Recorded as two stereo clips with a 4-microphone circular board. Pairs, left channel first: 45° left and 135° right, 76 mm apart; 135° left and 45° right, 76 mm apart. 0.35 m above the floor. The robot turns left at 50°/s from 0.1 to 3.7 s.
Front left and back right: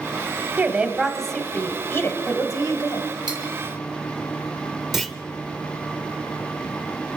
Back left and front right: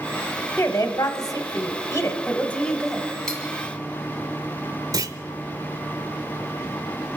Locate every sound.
0.6 s a woman speaking: straight behind, 1.0 m; by 3.0 s 55° left, 1.0 m
3.3 s cutlery clinking: 145° right, 2 m; by 3.4 s 155° right, 2 m
4.9 s a clunk: 45° right, 0.7 m